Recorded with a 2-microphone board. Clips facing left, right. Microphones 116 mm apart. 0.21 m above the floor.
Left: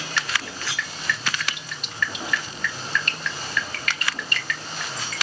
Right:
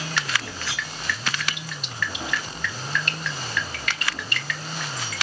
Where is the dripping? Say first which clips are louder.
Left 1 dB; centre (ahead or behind), 2.5 m.